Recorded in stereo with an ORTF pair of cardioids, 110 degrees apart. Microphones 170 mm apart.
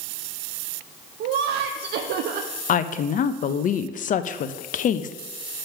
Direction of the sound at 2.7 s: 50° left.